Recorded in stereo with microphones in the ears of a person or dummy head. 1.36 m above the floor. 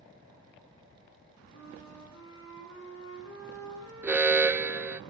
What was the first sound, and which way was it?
A flute, 75° left (ahead or behind).